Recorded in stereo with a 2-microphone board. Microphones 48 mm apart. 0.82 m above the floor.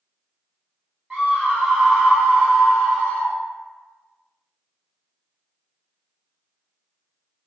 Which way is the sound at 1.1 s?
15° right (ahead or behind).